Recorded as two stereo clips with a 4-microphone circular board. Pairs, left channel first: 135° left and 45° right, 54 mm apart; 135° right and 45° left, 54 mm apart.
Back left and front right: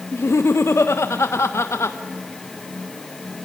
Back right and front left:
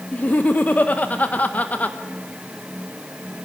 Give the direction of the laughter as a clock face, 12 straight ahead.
7 o'clock.